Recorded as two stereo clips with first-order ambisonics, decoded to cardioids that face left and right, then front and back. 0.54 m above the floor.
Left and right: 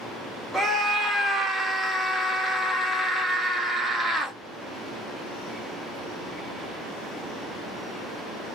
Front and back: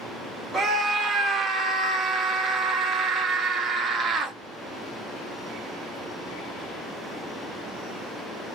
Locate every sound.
0.5 s a scream: 150° right, 0.9 m